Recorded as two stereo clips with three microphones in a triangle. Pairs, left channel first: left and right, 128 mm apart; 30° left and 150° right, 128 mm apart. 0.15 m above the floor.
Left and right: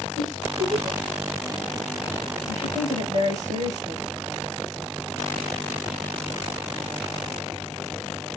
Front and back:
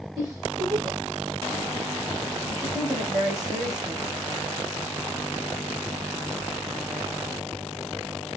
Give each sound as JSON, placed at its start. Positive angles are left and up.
{"t": 0.2, "sound": "a giggle", "azimuth_deg": -95, "distance_m": 5.5}
{"t": 2.5, "sound": "a woman speaking", "azimuth_deg": -95, "distance_m": 8.0}